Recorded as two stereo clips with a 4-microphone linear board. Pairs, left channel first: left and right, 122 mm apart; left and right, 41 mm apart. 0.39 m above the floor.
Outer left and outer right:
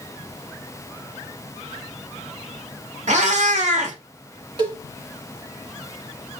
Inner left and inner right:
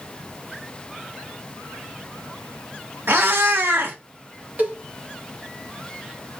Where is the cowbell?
40° right (ahead or behind), 1.2 m.